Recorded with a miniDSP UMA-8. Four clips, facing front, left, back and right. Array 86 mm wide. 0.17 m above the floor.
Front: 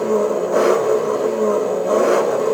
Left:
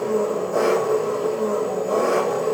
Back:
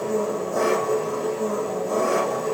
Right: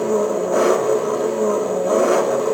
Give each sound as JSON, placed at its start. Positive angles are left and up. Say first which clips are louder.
{"t": 0.0, "sound": "an engine running", "louder": "right 3 dB, front 7 dB", "azimuth_deg": -55, "distance_m": 6.5}